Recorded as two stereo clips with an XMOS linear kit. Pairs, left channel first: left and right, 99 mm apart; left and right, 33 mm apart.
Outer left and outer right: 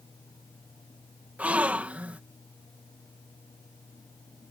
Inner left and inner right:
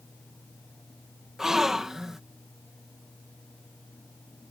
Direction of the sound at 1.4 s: 15° right (ahead or behind).